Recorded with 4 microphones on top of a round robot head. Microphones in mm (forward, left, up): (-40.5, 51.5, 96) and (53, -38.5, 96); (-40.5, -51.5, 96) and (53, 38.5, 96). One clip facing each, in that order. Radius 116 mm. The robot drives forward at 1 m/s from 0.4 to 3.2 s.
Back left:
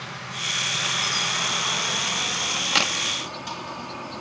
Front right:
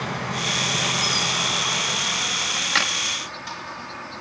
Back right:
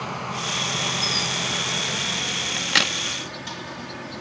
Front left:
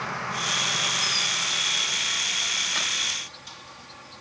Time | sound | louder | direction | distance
0.0 | an insect | front right 9 dB, back right 2 dB | 70° right | ?
2.6 | a crack | back left 1 dB, back right 11 dB | 135° right | ?